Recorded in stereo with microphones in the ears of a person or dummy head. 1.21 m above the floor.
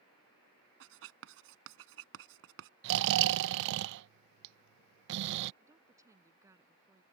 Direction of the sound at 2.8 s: 60° right (ahead or behind).